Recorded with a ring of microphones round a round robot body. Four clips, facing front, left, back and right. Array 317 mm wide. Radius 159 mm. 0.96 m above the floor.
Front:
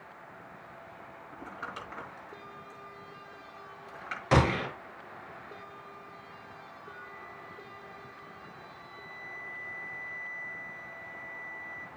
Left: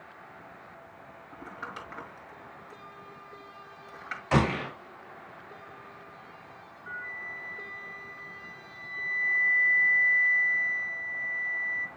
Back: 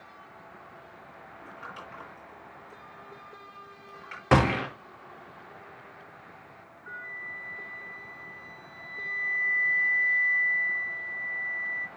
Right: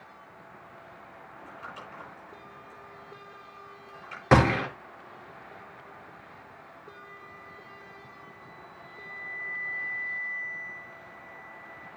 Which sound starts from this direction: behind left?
A flute, at 6.9 s.